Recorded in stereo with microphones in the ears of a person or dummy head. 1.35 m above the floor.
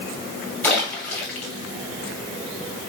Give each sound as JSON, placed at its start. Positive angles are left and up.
{"t": 0.6, "sound": "a splash", "side_deg": 10, "distance_m": 1.4}